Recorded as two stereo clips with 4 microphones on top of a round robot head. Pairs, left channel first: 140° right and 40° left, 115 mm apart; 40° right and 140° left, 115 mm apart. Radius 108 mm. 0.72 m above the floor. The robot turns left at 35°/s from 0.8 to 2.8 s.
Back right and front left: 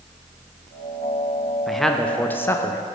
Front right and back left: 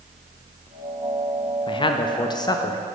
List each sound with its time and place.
1.7 s a man speaking: 50° right, 0.6 m; by 2.9 s 90° right, 0.6 m